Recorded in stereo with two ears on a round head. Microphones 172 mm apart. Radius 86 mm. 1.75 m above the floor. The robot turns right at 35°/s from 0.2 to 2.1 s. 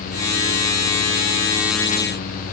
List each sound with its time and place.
Only background noise.